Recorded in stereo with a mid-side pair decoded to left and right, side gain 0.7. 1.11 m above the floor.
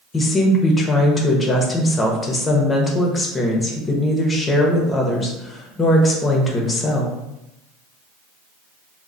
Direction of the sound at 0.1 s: 20° left.